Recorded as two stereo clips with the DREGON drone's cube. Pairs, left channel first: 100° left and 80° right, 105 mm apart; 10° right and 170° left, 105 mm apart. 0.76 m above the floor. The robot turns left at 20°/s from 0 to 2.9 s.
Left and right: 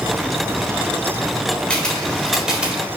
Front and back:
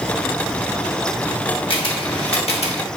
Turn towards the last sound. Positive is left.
turn(degrees=-5)